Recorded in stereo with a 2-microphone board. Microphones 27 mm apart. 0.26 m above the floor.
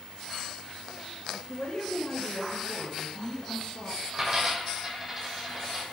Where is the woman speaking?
60° left (ahead or behind), 3 m.